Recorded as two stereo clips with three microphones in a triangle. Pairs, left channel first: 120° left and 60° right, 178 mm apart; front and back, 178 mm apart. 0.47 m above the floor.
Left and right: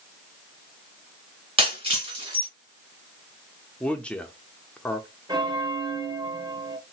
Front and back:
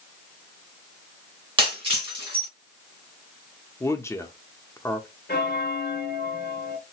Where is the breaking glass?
120° right, 2.5 m.